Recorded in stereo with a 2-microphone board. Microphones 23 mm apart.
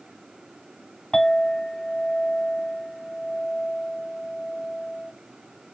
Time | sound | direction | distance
1.1 | a clink | 45° left (ahead or behind) | 3 m